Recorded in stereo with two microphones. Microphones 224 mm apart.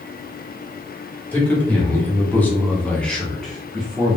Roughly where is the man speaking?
Centre.